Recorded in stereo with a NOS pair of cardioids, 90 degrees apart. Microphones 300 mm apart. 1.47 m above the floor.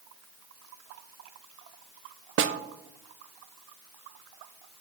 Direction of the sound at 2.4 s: 45° right.